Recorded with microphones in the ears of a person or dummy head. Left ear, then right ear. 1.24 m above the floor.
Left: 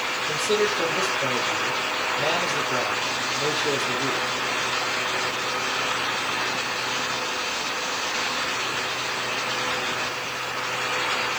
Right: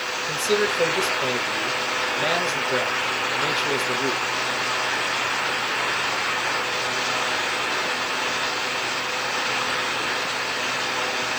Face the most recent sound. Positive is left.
turn(degrees=-20)  # may be behind; listen again after turning